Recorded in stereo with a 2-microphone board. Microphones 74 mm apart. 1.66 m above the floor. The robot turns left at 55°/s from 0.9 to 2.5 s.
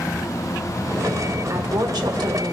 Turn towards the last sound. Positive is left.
turn(degrees=-105)